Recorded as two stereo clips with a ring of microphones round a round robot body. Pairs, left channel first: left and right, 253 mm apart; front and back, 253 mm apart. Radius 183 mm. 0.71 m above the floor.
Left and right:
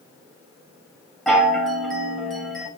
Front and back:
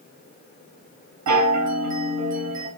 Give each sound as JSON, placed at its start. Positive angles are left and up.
{"t": 1.3, "sound": "a chime", "azimuth_deg": 180, "distance_m": 3.5}